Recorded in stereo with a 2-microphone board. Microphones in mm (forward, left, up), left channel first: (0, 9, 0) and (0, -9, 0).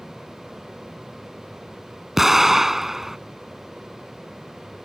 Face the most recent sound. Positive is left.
turn(degrees=-15)  # may be behind; listen again after turning